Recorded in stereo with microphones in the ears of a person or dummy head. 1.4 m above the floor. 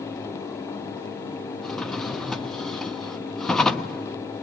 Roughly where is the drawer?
Centre.